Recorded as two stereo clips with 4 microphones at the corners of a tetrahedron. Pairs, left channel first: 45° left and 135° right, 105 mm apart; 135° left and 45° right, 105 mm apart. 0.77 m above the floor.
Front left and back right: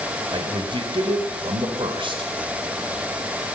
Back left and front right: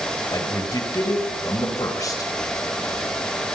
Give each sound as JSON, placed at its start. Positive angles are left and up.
{"t": 0.3, "sound": "a man speaking", "azimuth_deg": -170, "distance_m": 4.0}